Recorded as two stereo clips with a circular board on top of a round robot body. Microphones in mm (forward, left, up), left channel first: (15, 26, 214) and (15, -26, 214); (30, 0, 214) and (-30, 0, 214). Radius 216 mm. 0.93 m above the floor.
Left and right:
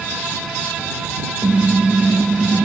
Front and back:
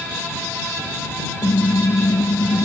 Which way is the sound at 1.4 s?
15° right.